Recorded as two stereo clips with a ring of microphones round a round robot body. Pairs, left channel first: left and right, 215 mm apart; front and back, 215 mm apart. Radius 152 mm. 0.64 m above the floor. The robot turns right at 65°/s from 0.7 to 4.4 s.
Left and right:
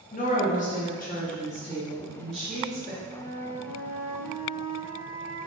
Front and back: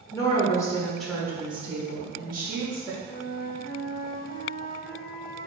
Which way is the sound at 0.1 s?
70° left.